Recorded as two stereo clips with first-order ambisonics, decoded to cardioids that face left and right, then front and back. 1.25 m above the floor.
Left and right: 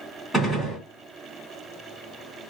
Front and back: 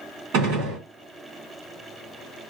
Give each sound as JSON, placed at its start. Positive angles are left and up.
{"t": 0.3, "sound": "a gunshot", "azimuth_deg": 180, "distance_m": 3.0}